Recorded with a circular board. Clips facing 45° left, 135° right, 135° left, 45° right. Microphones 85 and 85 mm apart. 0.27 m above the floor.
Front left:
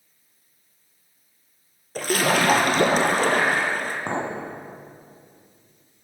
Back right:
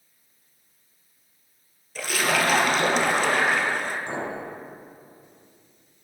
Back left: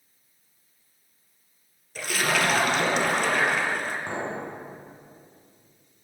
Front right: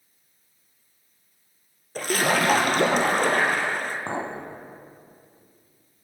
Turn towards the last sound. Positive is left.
turn(degrees=10)